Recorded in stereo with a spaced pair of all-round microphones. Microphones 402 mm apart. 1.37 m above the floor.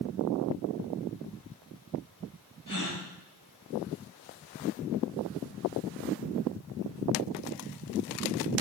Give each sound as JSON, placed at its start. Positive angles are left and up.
{"t": 2.7, "sound": "a gasp", "side_deg": 50, "distance_m": 9.0}